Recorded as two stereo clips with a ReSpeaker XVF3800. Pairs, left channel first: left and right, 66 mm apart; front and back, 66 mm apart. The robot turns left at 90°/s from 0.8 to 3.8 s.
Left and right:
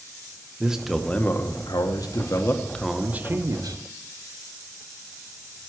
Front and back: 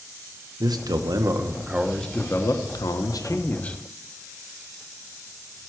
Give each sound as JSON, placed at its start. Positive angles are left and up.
{"t": 0.6, "sound": "a man speaking", "azimuth_deg": -170, "distance_m": 1.0}